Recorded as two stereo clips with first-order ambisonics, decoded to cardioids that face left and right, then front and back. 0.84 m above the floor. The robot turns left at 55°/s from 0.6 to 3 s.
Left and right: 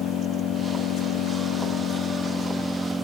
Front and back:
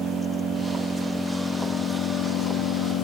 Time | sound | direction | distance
0.0 | an engine running | 135° left | 1.4 m